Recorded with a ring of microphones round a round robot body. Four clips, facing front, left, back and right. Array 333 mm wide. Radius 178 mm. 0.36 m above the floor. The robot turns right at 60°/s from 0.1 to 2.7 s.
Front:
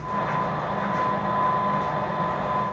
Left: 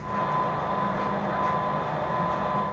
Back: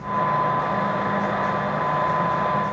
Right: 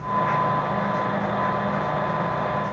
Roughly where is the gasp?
No gasp in this recording.